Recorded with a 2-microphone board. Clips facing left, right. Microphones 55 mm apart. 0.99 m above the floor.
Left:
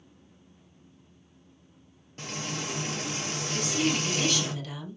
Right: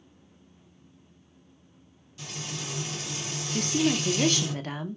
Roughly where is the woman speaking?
Right.